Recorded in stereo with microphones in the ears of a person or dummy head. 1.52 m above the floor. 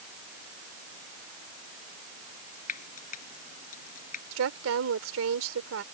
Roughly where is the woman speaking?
Right.